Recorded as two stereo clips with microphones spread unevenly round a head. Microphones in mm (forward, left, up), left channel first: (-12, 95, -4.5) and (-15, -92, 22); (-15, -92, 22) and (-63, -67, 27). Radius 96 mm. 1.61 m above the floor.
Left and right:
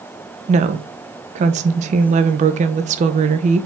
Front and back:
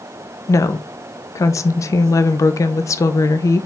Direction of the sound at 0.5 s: 45° right.